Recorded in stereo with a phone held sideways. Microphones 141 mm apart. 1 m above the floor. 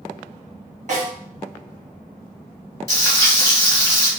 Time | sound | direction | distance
0.9 | a snare drum | 55° right (ahead or behind) | 1.5 m
2.9 | frying | 20° left (ahead or behind) | 1.2 m